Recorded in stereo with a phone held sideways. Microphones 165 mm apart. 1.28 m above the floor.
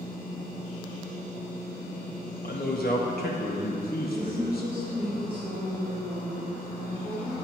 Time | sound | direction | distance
2.4 | a man speaking | 70° left (ahead or behind) | 0.7 m
4.1 | a woman speaking | 30° right (ahead or behind) | 1.8 m